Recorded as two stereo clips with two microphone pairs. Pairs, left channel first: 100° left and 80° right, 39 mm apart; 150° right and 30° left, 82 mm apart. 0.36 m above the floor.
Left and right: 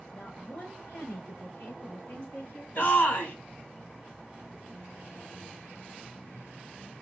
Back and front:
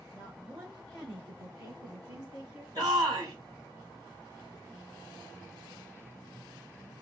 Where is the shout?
70° left, 3 m.